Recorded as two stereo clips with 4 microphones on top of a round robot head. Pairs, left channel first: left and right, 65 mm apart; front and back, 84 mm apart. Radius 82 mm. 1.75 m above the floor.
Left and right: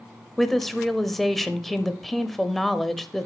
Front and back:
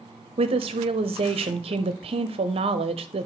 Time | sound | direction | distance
0.4 | a woman speaking | straight behind | 0.8 m